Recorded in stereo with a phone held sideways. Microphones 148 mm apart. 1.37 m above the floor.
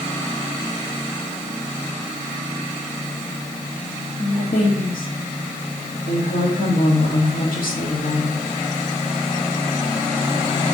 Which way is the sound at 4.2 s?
80° left.